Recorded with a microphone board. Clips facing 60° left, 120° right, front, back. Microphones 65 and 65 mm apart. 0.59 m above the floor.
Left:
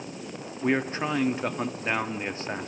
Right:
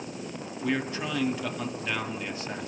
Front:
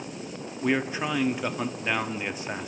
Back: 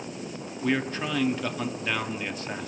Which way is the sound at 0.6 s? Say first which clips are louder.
Left 4 dB, front 1 dB; 65° left.